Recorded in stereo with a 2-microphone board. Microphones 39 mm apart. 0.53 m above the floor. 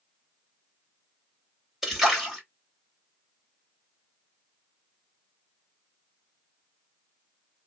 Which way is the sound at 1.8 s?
15° right (ahead or behind).